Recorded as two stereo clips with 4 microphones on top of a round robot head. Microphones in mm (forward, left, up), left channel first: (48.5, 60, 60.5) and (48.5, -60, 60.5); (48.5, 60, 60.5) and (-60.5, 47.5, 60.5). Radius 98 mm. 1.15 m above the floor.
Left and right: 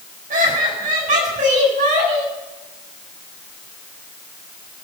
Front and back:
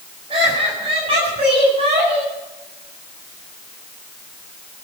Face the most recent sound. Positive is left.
turn(degrees=-125)